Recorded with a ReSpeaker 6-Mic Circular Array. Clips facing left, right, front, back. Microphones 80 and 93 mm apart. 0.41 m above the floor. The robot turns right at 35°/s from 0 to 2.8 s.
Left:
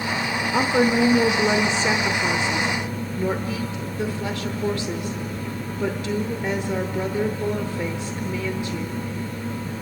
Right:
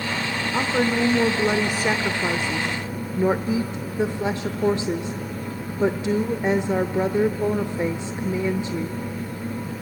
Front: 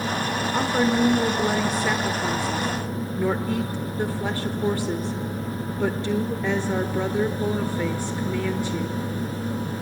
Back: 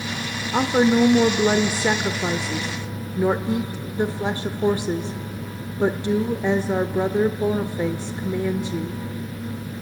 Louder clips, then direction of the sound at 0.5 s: Left 3 dB, back 5 dB; 145° left.